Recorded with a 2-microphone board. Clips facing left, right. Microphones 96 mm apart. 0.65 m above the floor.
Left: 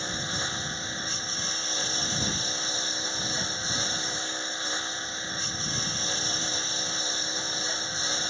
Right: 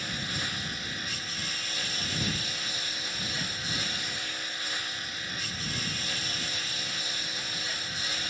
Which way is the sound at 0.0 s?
30° left (ahead or behind).